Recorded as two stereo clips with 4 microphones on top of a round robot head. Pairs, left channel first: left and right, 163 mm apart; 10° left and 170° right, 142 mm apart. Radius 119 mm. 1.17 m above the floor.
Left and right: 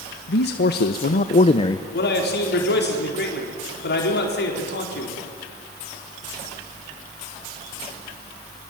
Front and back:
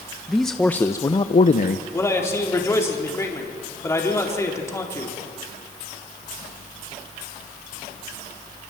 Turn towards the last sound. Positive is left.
turn(degrees=80)